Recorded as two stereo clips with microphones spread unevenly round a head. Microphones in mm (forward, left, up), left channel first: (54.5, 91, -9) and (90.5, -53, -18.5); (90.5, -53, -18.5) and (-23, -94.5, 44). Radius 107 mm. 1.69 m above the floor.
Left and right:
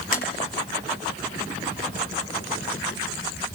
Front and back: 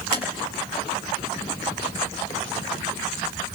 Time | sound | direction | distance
0.1 | tapping | 150° left | 6.5 m